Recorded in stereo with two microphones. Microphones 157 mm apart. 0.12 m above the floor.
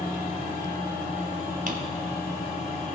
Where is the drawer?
65° right (ahead or behind), 1.0 m.